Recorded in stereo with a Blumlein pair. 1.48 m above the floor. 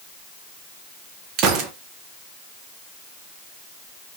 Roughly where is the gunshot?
Ahead right.